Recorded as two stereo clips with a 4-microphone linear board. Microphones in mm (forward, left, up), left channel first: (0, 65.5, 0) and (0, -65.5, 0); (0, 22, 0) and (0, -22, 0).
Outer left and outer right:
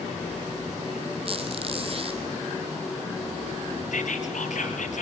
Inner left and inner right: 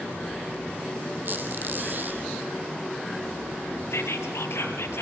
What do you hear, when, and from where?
1.2 s a squeak: 45° right (ahead or behind), 4 m
3.9 s whispering: 75° left (ahead or behind), 4.5 m